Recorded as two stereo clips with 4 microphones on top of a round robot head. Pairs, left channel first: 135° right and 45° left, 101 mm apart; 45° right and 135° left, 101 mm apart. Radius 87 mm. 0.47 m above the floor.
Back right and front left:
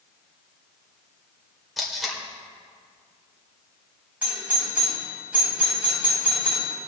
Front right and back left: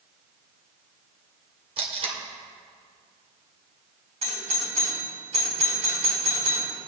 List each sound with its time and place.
1.8 s tape being pulled: 135° left, 2.5 m
4.2 s a doorbell: 125° left, 4 m